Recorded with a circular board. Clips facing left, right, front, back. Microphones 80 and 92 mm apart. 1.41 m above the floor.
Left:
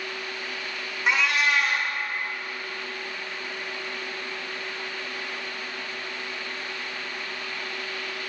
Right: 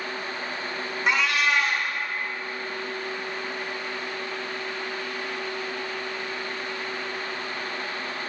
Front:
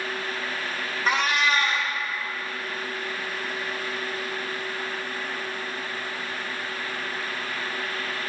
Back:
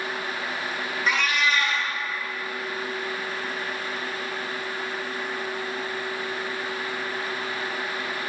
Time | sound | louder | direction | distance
1.1 | a cat meowing | even, front 2 dB | straight ahead | 0.9 m